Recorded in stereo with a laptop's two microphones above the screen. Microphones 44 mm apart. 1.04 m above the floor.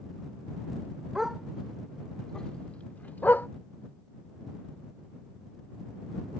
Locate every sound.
1.1 s a dog barking: 15° right (ahead or behind); by 3.5 s 50° left (ahead or behind)